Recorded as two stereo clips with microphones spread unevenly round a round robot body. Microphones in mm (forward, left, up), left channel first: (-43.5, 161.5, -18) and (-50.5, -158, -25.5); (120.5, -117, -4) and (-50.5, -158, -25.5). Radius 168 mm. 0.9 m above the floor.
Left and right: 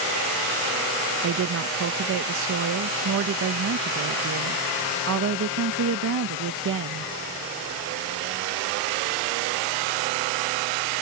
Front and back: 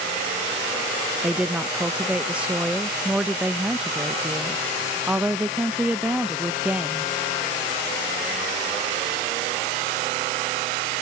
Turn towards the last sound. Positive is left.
turn(degrees=-95)